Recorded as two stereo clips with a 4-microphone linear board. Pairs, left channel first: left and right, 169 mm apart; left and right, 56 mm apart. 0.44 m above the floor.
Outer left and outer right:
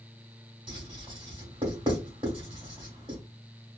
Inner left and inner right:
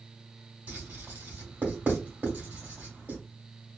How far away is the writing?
About 1.5 m.